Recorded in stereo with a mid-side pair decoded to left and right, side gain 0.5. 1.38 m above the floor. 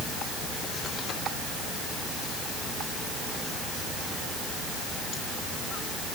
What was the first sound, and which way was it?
Only background noise.